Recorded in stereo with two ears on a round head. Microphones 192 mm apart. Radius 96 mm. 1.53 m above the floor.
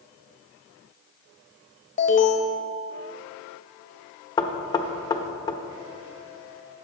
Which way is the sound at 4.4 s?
15° left (ahead or behind).